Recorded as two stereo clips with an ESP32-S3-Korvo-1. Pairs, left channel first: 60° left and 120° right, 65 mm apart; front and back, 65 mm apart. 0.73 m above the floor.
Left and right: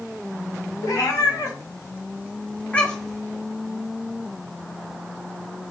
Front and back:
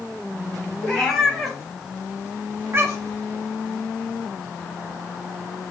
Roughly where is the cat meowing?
Left.